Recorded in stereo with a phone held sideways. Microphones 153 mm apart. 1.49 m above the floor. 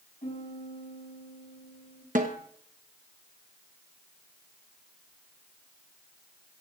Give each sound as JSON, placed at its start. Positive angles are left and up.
{"t": 0.2, "sound": "a piano", "side_deg": 55, "distance_m": 7.0}
{"t": 2.1, "sound": "a snare drum", "side_deg": -60, "distance_m": 1.0}